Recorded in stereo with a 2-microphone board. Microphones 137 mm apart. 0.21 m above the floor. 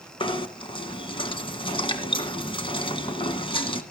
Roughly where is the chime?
I don't hear a chime.